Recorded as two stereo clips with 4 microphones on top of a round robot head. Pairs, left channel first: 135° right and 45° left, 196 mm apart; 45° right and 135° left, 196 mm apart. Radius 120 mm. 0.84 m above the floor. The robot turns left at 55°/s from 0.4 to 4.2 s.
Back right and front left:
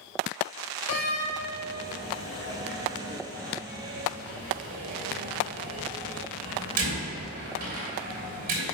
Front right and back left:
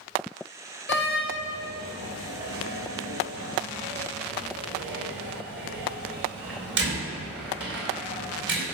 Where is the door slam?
80° right, 2.5 m; by 8.7 s 95° left, 2.5 m.